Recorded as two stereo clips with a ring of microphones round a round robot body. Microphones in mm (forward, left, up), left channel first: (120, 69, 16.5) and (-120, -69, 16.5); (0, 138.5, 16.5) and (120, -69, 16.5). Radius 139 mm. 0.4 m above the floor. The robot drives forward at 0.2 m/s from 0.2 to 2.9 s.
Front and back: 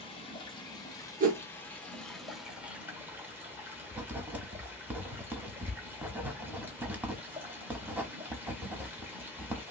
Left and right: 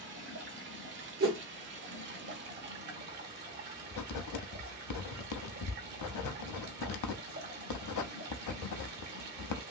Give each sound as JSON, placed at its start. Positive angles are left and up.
{"t": 0.0, "sound": "running water", "azimuth_deg": -40, "distance_m": 1.2}
{"t": 1.2, "sound": "a whoosh", "azimuth_deg": -100, "distance_m": 0.7}
{"t": 3.9, "sound": "writing", "azimuth_deg": 125, "distance_m": 0.6}